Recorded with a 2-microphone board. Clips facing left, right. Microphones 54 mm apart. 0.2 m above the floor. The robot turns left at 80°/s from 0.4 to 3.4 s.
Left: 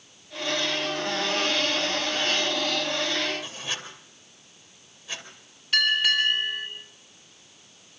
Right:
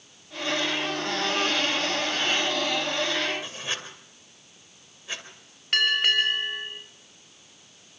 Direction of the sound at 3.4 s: 30° right (ahead or behind).